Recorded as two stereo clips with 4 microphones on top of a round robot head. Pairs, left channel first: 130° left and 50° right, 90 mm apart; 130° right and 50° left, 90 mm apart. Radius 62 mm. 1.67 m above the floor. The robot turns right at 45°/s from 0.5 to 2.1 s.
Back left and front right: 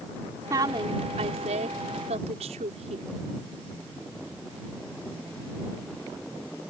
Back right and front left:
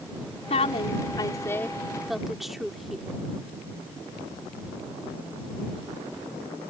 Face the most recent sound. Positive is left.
turn(degrees=-40)